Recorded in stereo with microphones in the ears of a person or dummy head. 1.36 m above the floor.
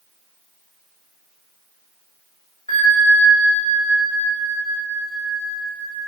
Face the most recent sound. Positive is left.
turn(degrees=20)  # may be behind; listen again after turning